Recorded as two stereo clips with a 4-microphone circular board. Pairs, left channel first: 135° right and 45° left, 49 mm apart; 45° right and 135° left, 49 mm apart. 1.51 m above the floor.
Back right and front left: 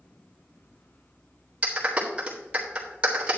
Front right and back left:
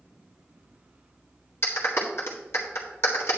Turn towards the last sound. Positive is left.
turn(degrees=-20)